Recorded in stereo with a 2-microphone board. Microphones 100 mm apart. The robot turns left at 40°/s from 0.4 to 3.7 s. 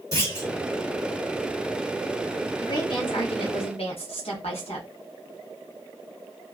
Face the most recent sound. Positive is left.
turn(degrees=100)